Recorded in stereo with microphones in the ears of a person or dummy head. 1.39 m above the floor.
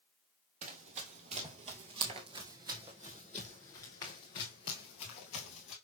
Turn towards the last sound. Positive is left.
turn(degrees=40)  # may be behind; listen again after turning